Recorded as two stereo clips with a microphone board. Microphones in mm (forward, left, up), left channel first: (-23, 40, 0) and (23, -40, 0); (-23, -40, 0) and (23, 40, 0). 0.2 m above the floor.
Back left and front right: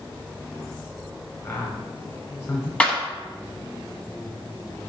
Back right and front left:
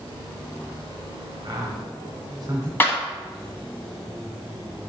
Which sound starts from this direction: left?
A man speaking, at 1.4 s.